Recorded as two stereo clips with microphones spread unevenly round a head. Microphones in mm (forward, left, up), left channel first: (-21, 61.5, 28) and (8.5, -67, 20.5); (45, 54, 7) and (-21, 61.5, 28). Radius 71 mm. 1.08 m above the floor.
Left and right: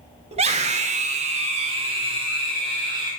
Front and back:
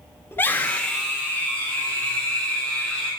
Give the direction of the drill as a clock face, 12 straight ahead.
No drill in this recording.